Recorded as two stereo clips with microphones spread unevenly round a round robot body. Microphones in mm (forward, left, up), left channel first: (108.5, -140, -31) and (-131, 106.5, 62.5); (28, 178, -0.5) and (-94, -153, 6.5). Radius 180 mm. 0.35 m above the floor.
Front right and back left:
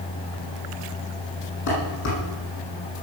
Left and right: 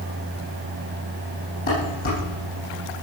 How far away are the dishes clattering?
About 9.5 m.